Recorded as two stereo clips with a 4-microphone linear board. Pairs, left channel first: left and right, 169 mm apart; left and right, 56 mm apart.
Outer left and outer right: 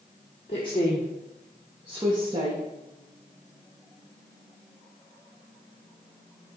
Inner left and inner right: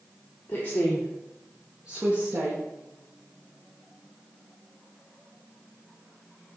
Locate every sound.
0.5 s a woman speaking: 35° left (ahead or behind), 1.6 m; by 2.6 s 30° right (ahead or behind), 2.0 m